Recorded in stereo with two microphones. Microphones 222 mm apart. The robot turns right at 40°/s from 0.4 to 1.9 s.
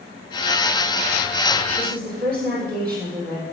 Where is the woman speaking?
40° right (ahead or behind), 7.5 m; by 3.4 s 45° right (ahead or behind), 7.5 m.